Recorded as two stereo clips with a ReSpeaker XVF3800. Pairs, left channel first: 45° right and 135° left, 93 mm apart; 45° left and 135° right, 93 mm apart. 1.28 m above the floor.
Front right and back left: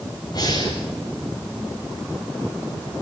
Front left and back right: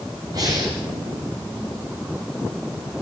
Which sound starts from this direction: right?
Breathing, at 0.3 s.